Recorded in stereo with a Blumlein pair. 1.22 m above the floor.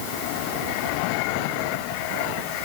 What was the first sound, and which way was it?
Only background noise.